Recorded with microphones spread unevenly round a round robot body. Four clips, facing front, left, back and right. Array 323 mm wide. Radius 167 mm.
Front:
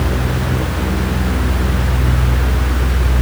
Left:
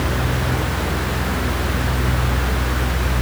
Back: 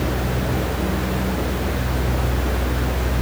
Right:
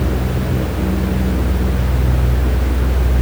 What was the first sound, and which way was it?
Only background noise.